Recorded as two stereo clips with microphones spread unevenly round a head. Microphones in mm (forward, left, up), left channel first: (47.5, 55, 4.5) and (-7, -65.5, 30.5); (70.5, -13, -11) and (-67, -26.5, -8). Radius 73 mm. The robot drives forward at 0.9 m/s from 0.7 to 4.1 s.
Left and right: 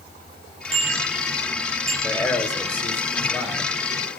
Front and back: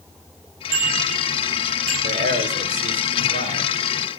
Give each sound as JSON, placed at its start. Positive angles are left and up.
{"t": 0.7, "sound": "a bicycle bell", "azimuth_deg": -165, "distance_m": 8.0}
{"t": 2.0, "sound": "a man speaking", "azimuth_deg": 140, "distance_m": 3.5}